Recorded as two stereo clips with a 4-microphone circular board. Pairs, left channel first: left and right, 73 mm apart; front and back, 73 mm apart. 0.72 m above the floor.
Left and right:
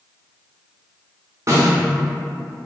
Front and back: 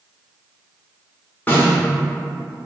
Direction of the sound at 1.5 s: 55° right.